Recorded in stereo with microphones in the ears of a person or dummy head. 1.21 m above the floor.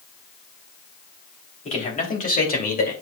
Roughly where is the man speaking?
Left.